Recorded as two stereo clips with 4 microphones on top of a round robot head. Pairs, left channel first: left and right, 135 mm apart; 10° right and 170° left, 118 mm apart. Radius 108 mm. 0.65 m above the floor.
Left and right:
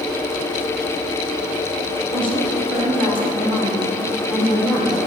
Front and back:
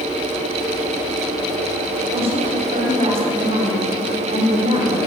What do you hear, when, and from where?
2.1 s a woman speaking: 140° left, 4 m